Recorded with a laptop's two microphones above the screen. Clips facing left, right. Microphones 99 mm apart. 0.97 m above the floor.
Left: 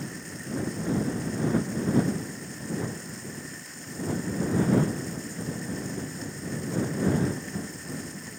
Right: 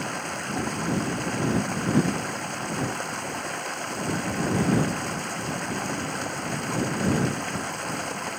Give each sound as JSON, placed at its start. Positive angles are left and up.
{"t": 0.0, "sound": "running water", "side_deg": -70}